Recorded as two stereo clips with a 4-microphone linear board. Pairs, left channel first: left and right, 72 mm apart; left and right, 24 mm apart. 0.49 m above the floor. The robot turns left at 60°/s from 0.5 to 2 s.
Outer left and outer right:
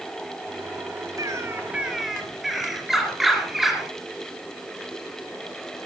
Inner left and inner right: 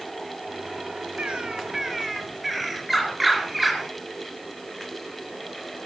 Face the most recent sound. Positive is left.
turn(degrees=-175)